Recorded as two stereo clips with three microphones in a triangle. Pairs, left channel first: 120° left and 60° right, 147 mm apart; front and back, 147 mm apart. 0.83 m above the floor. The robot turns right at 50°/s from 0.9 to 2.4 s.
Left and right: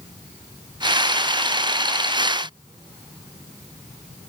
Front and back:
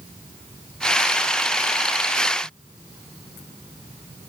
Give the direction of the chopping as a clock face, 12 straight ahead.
I don't hear chopping.